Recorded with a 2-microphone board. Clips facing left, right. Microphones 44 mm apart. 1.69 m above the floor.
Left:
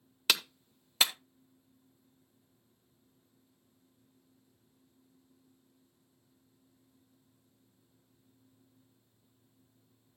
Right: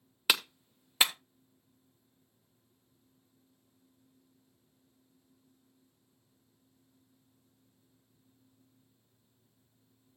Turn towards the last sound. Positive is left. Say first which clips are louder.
# right 1 dB
turn(degrees=-15)  # may be behind; listen again after turning